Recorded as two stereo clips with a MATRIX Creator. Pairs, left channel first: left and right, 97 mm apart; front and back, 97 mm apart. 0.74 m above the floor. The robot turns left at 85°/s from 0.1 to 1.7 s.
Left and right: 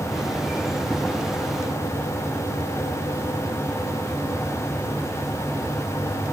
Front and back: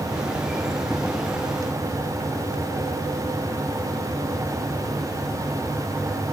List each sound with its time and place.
Only background noise.